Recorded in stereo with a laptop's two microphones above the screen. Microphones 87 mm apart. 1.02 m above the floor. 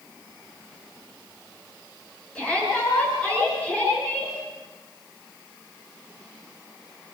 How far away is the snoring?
No snoring in this recording.